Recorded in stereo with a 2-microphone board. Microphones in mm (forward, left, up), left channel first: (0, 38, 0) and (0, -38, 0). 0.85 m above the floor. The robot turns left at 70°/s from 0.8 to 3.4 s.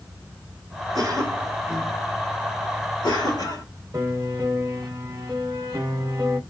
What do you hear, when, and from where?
0.9 s a cough: 55° right (ahead or behind), 1.3 m; by 3.6 s 60° left (ahead or behind), 1.3 m
3.9 s a piano: 45° right (ahead or behind), 0.9 m